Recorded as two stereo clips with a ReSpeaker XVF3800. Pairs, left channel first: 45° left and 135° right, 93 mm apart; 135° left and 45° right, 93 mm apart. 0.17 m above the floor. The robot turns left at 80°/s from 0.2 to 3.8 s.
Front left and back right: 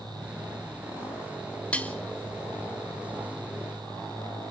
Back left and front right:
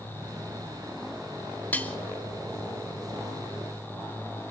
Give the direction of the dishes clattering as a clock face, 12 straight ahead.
9 o'clock.